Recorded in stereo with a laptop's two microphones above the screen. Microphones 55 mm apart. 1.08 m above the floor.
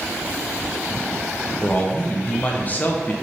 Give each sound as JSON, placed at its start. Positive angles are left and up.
{"t": 1.6, "sound": "a man speaking", "side_deg": 35, "distance_m": 0.7}